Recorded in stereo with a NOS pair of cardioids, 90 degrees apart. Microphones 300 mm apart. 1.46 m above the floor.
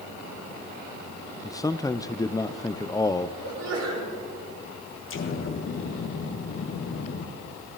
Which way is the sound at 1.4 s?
10° left.